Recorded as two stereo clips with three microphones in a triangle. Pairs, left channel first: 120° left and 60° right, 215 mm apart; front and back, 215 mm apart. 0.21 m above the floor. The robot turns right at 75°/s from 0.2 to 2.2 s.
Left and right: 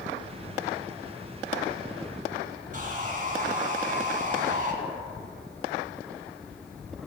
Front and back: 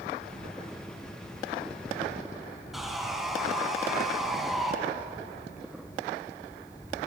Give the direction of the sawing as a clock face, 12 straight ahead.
3 o'clock.